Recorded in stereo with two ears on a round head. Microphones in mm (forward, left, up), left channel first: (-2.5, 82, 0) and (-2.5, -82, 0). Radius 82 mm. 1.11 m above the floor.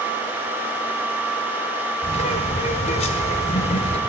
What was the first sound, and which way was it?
A bird, 35° left (ahead or behind).